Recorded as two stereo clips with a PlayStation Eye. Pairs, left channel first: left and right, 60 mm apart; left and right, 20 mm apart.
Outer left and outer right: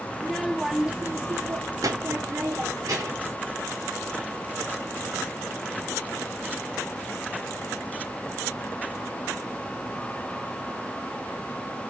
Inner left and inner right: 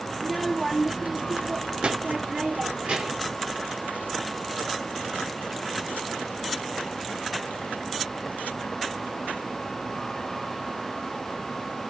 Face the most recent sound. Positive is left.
turn(degrees=-75)  # may be behind; listen again after turning